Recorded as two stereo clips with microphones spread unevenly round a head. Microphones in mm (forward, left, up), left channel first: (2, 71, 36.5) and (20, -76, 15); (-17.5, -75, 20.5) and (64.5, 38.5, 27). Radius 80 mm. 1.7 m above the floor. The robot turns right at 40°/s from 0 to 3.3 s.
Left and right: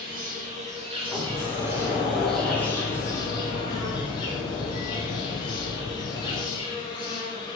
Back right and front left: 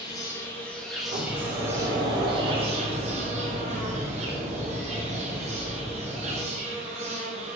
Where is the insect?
75° right, 0.8 m; by 7.6 s 55° left, 0.8 m.